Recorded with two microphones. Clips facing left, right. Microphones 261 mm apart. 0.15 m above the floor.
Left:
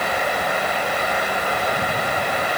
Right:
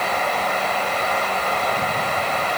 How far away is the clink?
I don't hear a clink.